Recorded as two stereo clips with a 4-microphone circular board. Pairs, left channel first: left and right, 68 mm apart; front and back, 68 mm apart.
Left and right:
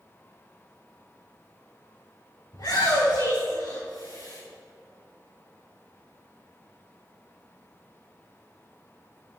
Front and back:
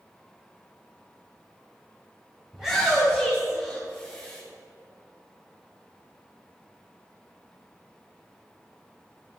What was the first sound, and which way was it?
A shout, 100° left.